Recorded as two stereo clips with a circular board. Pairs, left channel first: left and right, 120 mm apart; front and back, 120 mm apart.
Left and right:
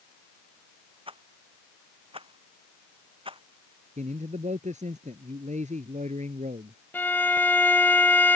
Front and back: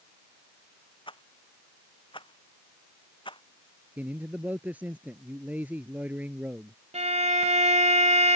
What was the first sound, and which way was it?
A rattle, 45° right.